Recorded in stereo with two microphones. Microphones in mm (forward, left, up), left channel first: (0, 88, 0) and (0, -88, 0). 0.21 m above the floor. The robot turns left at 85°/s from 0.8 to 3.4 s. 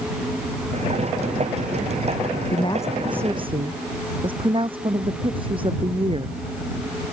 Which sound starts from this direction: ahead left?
A woman speaking, at 2.5 s.